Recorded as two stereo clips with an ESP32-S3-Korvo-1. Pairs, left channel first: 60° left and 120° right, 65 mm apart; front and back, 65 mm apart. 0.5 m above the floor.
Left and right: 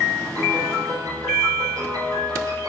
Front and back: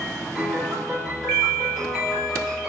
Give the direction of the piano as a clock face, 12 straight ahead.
3 o'clock.